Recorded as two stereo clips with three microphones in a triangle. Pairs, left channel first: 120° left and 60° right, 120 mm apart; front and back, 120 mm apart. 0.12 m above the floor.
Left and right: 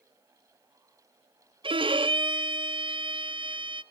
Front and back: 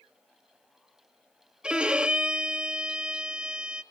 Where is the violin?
95° right, 0.9 m.